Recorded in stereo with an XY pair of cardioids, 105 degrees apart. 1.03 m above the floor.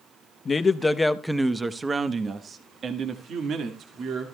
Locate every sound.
0.5 s a man speaking: 35° left, 0.9 m; by 4.3 s 65° right, 2.5 m